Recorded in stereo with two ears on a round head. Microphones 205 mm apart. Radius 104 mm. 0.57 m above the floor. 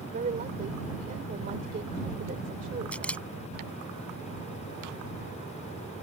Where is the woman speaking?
35° right (ahead or behind).